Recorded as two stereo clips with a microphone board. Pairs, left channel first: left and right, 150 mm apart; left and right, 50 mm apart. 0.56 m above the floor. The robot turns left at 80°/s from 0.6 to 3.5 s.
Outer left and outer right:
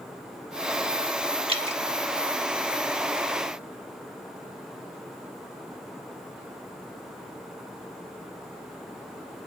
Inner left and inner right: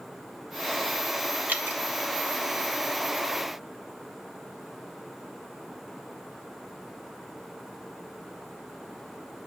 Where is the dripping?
40° right (ahead or behind), 1.5 m.